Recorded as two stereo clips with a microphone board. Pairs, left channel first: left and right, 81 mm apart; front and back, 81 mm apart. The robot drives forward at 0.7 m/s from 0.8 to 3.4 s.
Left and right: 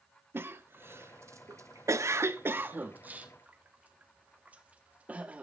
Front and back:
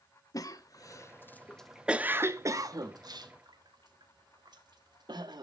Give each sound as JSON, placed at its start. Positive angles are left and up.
{"t": 0.3, "sound": "a cough", "azimuth_deg": -35, "distance_m": 0.9}